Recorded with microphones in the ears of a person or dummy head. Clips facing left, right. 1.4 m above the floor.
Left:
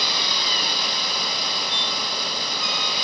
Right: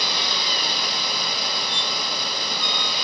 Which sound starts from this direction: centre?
A squeak, at 1.7 s.